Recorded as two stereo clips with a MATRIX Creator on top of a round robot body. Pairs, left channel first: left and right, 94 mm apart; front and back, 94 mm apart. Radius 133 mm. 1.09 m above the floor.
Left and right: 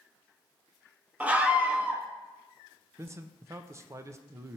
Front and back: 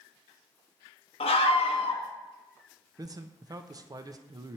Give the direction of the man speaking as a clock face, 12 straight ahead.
5 o'clock.